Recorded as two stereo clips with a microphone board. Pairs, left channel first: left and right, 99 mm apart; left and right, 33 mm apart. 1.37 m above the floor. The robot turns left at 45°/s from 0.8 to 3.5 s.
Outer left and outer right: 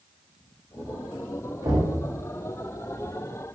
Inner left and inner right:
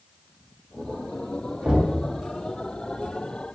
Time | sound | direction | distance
1.6 | knocking | 35° right (ahead or behind) | 0.7 m